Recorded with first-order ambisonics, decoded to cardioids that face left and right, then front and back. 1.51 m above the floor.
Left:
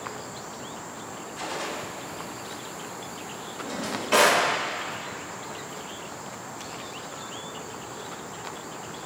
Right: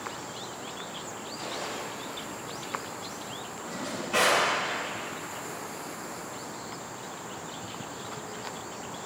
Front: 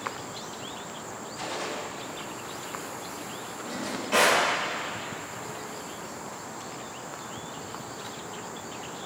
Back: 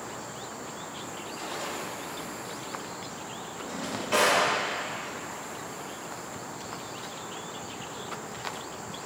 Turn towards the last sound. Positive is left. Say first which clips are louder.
# left 5 dB, even
turn(degrees=95)